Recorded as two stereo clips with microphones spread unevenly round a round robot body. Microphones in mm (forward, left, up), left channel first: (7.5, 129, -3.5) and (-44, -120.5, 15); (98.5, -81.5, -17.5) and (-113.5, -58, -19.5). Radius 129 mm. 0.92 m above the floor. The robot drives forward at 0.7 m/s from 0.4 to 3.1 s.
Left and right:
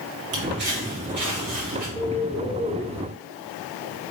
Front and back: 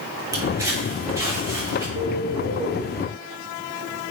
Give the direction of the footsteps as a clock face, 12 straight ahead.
4 o'clock.